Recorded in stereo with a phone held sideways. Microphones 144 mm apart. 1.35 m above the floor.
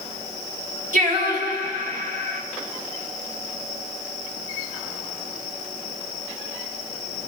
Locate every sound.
0.9 s singing: 65° right (ahead or behind), 1.6 m